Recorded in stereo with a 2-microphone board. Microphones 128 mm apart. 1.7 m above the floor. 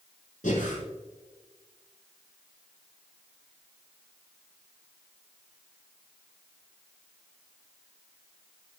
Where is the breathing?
75° left (ahead or behind), 5 m.